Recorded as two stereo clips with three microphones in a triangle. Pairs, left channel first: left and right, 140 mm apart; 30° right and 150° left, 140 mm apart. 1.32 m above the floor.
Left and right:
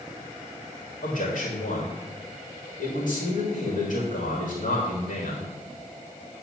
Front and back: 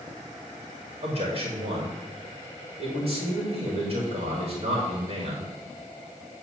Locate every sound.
1.0 s a man speaking: 110° left, 3 m